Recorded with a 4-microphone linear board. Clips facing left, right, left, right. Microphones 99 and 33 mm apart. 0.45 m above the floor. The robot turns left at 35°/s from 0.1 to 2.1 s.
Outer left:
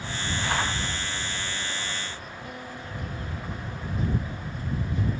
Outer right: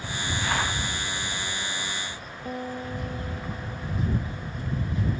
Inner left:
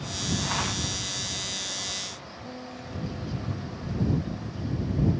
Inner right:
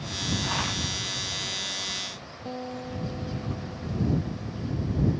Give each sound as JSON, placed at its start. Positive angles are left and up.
{"t": 2.5, "sound": "a guitar", "side_deg": -35}